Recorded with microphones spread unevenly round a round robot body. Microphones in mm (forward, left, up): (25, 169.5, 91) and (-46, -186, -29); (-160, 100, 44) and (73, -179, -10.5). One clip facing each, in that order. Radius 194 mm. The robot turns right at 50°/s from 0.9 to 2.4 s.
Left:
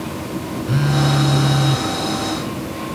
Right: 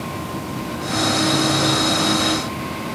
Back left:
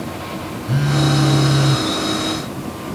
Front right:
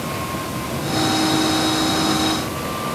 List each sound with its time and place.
0.7 s a phone buzzing: 90° left; by 1.9 s 140° left